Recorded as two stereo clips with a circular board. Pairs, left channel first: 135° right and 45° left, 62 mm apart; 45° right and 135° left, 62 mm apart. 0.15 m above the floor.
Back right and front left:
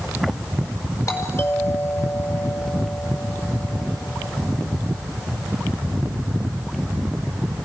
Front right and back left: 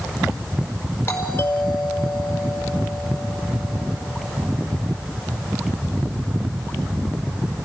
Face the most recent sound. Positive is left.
turn(degrees=-95)